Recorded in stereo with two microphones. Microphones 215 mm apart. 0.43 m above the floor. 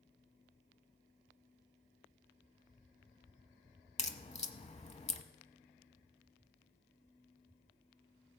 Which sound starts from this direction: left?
A crack, at 4.0 s.